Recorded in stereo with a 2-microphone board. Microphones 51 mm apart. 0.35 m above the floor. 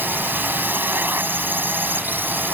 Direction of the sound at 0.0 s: 40° right (ahead or behind).